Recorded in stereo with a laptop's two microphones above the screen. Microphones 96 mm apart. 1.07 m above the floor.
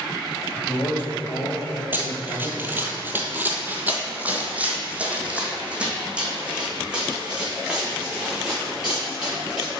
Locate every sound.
0.6 s a man speaking: 40° left (ahead or behind), 1.7 m; by 2.8 s 5° right (ahead or behind), 4.5 m
1.9 s running footsteps: 20° right (ahead or behind), 1.1 m; by 9.8 s 5° right (ahead or behind), 4.5 m